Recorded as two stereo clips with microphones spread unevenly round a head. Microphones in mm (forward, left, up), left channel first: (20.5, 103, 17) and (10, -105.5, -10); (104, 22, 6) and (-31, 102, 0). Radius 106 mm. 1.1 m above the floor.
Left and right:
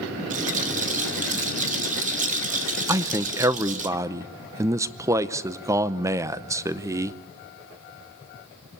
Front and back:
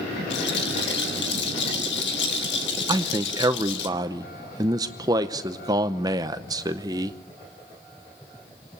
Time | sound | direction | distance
0.3 | a rattle | 40° right | 1.6 m
2.9 | a man speaking | 155° right | 0.6 m